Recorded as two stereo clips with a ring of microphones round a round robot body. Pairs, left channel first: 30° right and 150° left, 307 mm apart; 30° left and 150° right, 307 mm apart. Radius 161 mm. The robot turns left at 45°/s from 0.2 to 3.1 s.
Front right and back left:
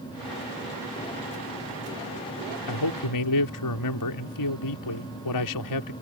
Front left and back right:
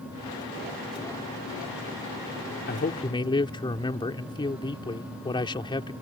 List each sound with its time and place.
2.7 s a man speaking: 25° right; by 5.9 s 45° right